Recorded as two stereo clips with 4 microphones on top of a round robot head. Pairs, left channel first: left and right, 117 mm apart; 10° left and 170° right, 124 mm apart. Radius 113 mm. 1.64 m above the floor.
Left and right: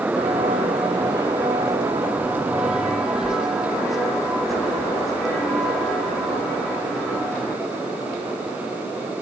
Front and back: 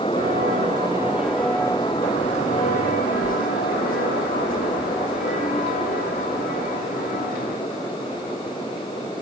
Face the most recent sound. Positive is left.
turn(degrees=5)